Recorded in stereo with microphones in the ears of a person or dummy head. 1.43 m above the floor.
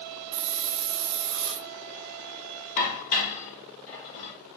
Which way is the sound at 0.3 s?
60° right (ahead or behind).